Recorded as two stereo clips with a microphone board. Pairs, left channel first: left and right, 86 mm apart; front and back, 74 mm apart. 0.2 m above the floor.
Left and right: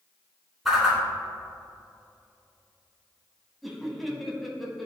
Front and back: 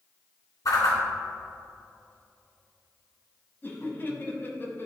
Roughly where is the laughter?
Ahead.